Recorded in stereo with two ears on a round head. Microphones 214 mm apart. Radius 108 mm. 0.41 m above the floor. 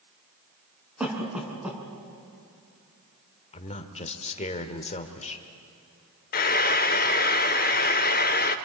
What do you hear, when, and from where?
1.0 s a cough: 5° right (ahead or behind), 5 m
3.5 s a man speaking: 30° left (ahead or behind), 1.6 m
6.3 s frying: 40° left (ahead or behind), 0.8 m